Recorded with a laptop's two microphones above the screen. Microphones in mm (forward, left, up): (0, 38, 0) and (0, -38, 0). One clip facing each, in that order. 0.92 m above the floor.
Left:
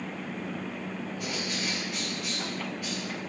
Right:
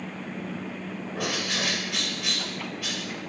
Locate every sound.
1.1 s a bird: 85° right, 3 m